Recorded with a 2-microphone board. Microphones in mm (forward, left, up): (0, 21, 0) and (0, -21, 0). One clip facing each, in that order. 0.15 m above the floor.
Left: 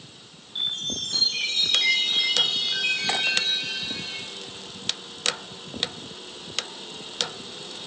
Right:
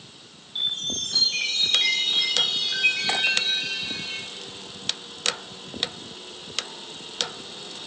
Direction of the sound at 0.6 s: 10° right (ahead or behind).